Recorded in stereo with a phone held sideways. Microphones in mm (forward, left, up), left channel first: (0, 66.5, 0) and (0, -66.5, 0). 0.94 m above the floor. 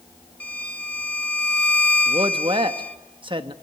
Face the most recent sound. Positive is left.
turn(degrees=-40)  # may be behind; listen again after turning